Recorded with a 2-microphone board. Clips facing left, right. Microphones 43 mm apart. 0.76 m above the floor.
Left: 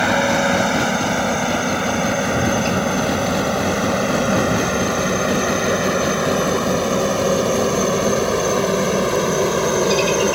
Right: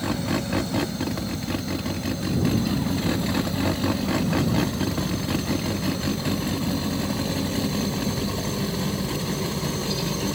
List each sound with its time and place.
0.0 s a helicopter: 70° left (ahead or behind); by 10.4 s 65° left (ahead or behind)